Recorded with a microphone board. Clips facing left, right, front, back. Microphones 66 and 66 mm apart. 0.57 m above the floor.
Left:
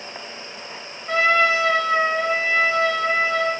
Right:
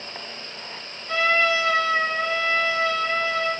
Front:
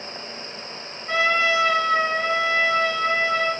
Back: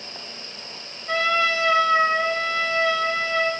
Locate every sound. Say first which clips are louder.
1.1 s a trumpet: left 3 dB, front 1 dB; 70° left, 2.5 m